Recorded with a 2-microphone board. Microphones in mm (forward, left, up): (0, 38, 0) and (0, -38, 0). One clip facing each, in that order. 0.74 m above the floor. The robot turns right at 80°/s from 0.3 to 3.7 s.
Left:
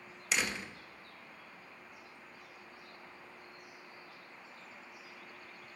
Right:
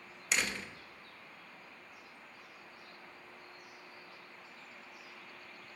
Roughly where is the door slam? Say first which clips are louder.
Even; centre.